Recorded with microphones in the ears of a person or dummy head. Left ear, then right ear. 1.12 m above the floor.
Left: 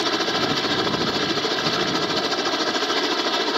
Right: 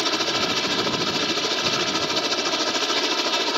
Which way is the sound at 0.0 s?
5° right (ahead or behind).